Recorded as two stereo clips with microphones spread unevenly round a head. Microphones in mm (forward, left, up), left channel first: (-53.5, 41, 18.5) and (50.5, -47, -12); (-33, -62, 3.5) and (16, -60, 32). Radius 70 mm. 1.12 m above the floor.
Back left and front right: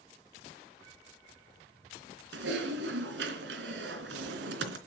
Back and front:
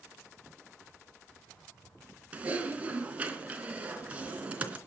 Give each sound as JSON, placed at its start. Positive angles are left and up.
{"t": 2.3, "sound": "typing on a keyboard", "azimuth_deg": -45, "distance_m": 3.0}